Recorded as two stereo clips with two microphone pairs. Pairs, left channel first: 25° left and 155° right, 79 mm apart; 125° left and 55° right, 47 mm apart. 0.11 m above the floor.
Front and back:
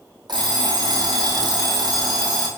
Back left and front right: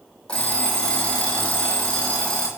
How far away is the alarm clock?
About 1.8 m.